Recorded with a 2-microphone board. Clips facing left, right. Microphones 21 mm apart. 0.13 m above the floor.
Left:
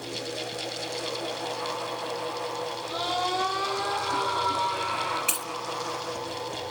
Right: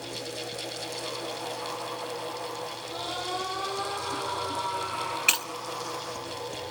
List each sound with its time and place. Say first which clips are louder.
2.9 s a scream: left 6 dB; 20° left (ahead or behind), 4 m; by 5.2 s 15° left (ahead or behind), 6.5 m
5.3 s breaking glass: right 6 dB; 30° right (ahead or behind), 0.6 m